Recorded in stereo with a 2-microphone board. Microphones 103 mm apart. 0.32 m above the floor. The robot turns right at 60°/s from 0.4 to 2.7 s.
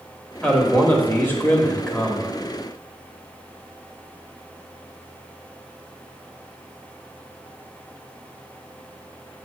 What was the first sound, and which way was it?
A man speaking, 10° left (ahead or behind).